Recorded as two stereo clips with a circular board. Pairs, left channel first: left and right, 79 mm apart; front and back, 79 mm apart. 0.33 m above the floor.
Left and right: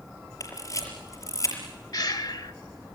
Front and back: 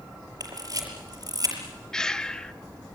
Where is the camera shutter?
135° left, 5.5 m.